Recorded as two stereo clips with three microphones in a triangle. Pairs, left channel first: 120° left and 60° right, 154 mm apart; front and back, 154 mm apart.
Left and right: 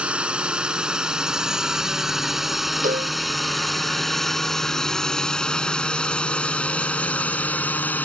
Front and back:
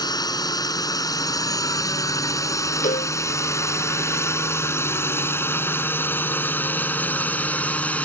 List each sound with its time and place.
0.0 s a drone: 15° left; by 8.1 s 65° left
2.8 s a cowbell: 30° right